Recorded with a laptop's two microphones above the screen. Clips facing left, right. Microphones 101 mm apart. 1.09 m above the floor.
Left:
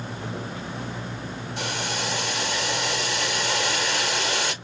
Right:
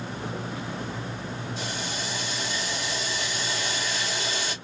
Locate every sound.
1.6 s boiling: 65° left (ahead or behind), 1.2 m